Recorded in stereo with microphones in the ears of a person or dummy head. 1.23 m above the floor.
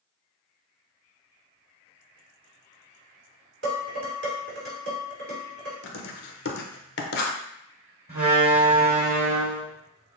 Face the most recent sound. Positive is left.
turn(degrees=-40)  # may be behind; listen again after turning